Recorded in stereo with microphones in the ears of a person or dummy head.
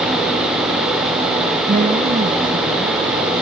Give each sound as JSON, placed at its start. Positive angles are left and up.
{"t": 1.7, "sound": "a woman speaking", "side_deg": -35}